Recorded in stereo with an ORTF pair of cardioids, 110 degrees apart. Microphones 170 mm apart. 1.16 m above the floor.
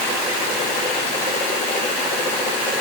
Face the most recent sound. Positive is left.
No sound to turn to.